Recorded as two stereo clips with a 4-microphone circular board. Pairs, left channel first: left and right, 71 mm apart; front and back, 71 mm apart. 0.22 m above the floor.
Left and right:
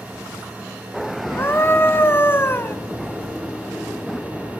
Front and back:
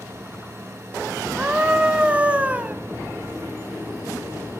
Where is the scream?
120° left, 1.2 m.